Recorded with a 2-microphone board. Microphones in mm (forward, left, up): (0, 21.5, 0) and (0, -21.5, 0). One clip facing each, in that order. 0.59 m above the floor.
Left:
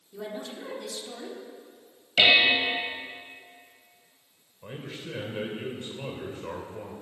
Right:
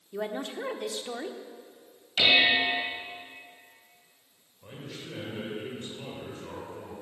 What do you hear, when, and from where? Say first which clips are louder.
0.1 s a woman speaking: right 4 dB; 40° right (ahead or behind), 1.5 m
2.2 s dishes clattering: left 2 dB; 70° left (ahead or behind), 2.5 m
4.6 s a man speaking: left 3 dB; 30° left (ahead or behind), 2 m